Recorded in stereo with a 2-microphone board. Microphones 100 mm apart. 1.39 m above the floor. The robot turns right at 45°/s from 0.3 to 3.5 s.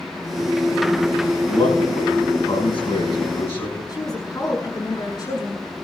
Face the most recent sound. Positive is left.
turn(degrees=40)  # may be behind; listen again after turning